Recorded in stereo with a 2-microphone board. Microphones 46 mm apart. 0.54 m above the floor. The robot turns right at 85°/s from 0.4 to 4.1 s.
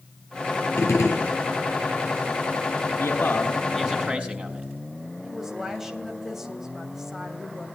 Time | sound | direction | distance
0.8 | a gunshot | 75° left | 3.5 m
3.0 | a man speaking | 110° left | 5 m
5.2 | a woman speaking | 10° right (ahead or behind) | 3 m